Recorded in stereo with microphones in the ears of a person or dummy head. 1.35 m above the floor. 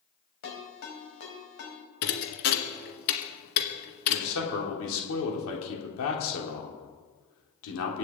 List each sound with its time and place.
0.4 s a ringtone: 65° left (ahead or behind), 4.5 m
2.0 s a thud: 50° left (ahead or behind), 2 m
4.1 s a man speaking: 75° left (ahead or behind), 3.5 m